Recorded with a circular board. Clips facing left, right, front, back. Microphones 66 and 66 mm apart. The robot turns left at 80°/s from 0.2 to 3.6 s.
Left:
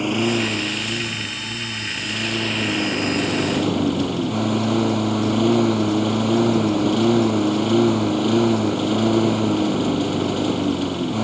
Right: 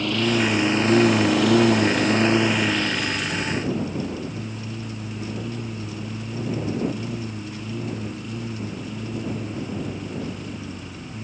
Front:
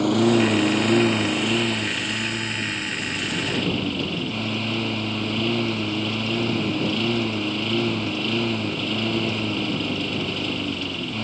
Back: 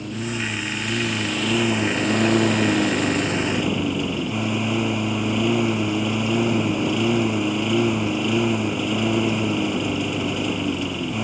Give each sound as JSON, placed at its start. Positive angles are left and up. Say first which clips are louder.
{"t": 0.0, "sound": "a lawn mower", "louder": "left 1 dB, front 10 dB", "azimuth_deg": 15}